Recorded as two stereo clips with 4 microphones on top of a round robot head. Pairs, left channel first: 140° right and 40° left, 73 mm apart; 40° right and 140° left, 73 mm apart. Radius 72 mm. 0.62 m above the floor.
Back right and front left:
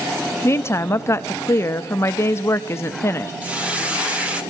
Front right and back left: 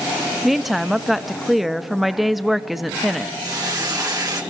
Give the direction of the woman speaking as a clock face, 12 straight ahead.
4 o'clock.